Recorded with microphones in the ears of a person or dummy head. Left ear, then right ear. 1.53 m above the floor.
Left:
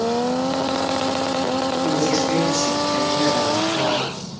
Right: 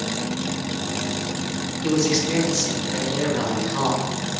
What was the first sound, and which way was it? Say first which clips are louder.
A man speaking: right 2 dB; 10° right (ahead or behind).